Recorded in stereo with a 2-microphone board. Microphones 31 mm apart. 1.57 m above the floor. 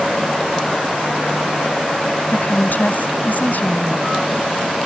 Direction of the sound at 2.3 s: 65° left (ahead or behind).